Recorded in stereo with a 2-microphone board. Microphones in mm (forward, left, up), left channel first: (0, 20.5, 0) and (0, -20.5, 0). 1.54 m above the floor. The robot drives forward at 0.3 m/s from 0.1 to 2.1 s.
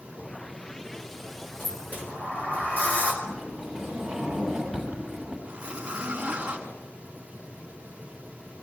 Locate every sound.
1.6 s a sliding door: 45° left (ahead or behind), 4.5 m; by 3.1 s 40° left (ahead or behind), 4.5 m
3.2 s a sliding door: centre (ahead or behind), 7.5 m
5.5 s a zipper: 15° right (ahead or behind), 4 m